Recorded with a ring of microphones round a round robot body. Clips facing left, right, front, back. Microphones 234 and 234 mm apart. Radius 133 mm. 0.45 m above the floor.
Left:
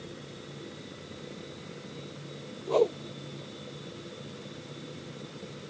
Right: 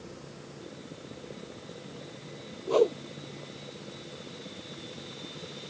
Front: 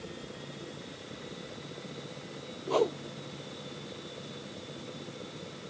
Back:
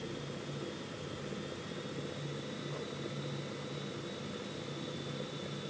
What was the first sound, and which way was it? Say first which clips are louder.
A whoosh: right 1 dB, front 14 dB; 15° right.